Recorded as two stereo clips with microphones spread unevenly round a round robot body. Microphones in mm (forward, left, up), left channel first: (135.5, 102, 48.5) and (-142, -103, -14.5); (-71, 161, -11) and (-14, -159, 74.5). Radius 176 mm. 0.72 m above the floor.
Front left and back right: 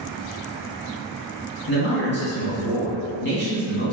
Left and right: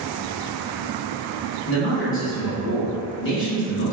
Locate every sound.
1.7 s a man speaking: 100° left, 1.5 m